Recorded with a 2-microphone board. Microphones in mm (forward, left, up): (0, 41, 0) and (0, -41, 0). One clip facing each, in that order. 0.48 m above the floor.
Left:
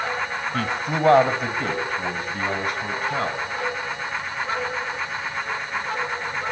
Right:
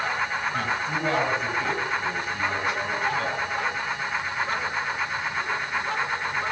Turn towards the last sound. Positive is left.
turn(degrees=40)  # may be behind; listen again after turning